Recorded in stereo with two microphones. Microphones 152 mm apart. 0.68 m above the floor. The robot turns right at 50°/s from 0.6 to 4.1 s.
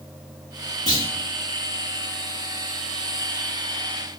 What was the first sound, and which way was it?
A clunk, 30° left (ahead or behind).